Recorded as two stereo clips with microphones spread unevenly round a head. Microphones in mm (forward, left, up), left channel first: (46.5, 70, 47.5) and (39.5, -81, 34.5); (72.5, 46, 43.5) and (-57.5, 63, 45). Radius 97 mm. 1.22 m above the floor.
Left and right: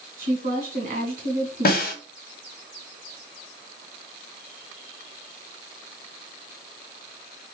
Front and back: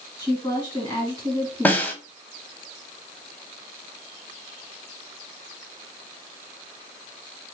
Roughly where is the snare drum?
Left.